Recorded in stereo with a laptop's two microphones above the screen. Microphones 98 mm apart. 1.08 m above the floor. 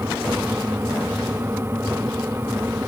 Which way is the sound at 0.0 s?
25° right (ahead or behind).